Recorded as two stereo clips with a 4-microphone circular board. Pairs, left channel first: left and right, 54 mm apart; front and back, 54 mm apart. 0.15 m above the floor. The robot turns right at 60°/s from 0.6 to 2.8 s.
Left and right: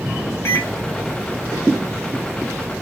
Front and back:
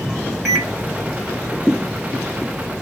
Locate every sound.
0.5 s a microwave: 95° left, 1.4 m; by 0.7 s 100° left, 1.4 m